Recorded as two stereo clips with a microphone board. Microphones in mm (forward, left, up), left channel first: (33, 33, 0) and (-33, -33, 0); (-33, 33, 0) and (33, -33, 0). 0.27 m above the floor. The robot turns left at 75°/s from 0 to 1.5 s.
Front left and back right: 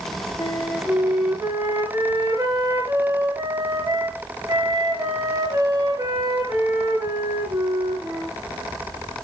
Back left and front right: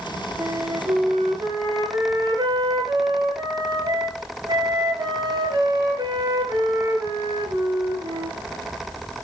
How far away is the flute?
About 3 m.